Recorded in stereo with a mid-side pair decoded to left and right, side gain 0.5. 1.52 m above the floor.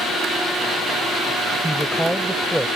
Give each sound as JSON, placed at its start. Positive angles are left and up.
{"t": 1.6, "sound": "a woman speaking", "azimuth_deg": -5}